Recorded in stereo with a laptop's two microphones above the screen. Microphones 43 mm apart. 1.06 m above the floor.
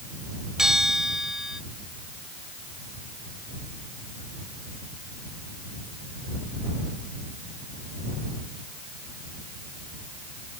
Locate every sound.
0.6 s a bell: 10° right (ahead or behind)